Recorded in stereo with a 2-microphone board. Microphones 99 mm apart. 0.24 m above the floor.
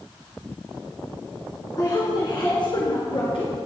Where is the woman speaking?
40° left (ahead or behind), 2.5 m; by 3.5 s 65° left (ahead or behind), 3 m.